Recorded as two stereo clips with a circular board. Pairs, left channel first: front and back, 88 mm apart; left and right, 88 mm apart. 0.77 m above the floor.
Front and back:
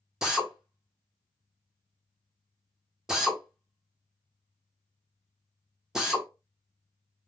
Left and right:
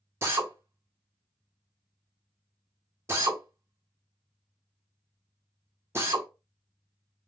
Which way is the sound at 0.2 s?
105° right.